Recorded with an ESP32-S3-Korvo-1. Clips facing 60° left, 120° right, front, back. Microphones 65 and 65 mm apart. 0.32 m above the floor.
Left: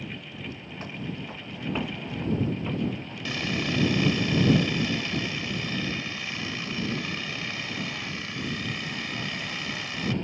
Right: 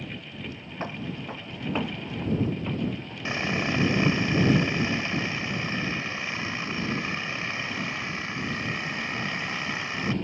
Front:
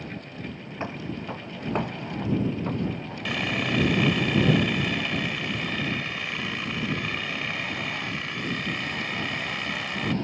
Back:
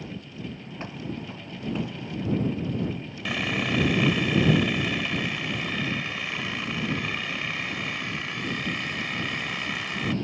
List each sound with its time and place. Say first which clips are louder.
0.8 s footsteps: right 3 dB, front 3 dB; 65° right; by 3.1 s 25° right
3.2 s sawing: right 2 dB, even; 90° right